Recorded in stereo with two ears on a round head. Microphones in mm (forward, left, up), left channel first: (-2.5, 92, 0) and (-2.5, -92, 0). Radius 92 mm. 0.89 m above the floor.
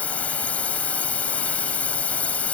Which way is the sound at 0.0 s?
5° left (ahead or behind).